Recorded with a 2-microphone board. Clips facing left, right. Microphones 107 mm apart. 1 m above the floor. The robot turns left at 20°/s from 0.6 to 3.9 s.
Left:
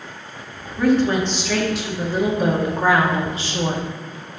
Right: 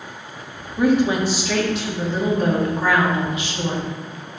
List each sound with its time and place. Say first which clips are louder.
0.8 s a woman speaking: even; 160° right, 1.8 m; by 3.9 s 135° left, 1.8 m